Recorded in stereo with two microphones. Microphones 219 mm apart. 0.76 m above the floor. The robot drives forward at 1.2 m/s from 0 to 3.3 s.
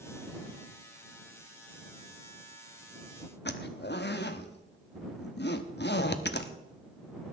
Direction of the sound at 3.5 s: 50° left (ahead or behind).